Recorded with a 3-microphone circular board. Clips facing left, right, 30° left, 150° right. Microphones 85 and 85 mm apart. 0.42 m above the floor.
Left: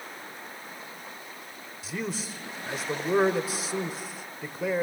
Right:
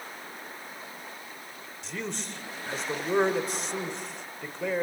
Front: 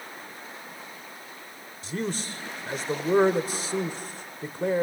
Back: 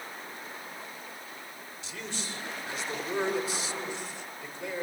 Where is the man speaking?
5° left, 1.4 m.